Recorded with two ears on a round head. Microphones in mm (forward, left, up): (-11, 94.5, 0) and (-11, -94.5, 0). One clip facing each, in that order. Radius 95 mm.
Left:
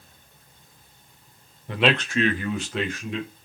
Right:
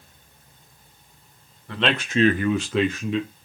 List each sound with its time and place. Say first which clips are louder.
1.7 s a man speaking: left 2 dB; 15° left (ahead or behind), 0.7 m; by 3.3 s 75° right (ahead or behind), 1.2 m